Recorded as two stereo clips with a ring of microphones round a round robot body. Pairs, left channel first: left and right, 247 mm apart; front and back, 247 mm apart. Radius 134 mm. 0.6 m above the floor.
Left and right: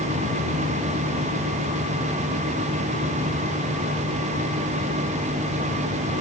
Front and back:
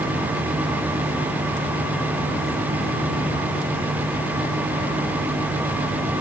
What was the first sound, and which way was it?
Only background noise.